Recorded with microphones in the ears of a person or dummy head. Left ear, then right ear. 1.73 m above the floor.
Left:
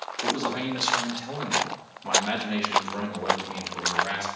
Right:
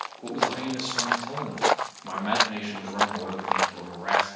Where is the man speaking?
40° left (ahead or behind), 2.5 m; by 4.3 s centre (ahead or behind), 4 m.